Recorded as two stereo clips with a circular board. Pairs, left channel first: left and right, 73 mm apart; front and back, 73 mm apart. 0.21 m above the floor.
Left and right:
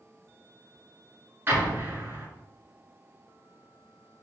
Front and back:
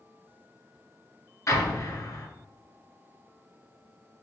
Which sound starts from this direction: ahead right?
An explosion, at 1.5 s.